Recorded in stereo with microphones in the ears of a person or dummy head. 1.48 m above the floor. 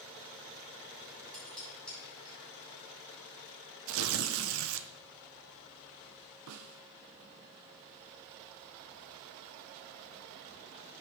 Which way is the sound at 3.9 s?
70° right (ahead or behind).